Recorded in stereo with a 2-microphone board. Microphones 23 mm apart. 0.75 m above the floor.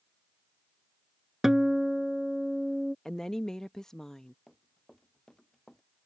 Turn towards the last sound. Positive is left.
turn(degrees=25)  # may be behind; listen again after turning